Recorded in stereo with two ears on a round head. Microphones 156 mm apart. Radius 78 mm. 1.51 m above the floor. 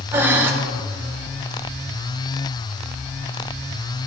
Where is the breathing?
15° right (ahead or behind), 1.0 m.